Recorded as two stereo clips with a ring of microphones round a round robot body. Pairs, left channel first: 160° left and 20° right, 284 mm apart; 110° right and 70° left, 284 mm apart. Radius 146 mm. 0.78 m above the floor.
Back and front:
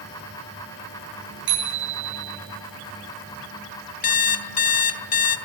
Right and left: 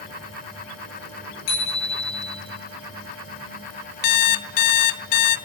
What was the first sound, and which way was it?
A bicycle bell, 75° right.